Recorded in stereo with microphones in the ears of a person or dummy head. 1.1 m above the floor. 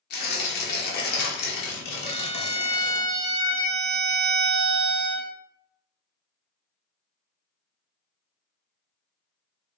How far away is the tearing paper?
About 0.9 m.